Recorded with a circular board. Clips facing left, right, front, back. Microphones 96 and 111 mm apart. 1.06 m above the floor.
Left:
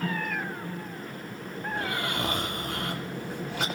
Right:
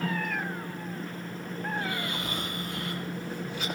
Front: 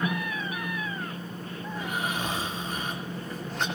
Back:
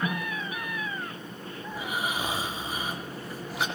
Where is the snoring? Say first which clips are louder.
Left 3 dB, even; 100° left, 1.9 m.